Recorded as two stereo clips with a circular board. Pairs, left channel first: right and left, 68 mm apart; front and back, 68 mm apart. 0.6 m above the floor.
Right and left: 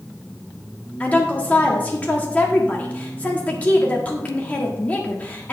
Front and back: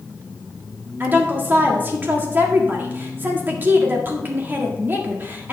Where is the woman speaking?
140° right, 1.4 m.